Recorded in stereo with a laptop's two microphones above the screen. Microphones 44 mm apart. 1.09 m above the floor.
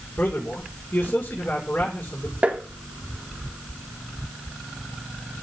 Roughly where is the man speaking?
Left.